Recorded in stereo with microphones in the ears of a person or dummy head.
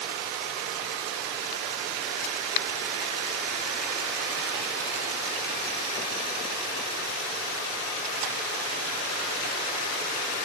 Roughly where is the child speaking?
No child speaking in this recording.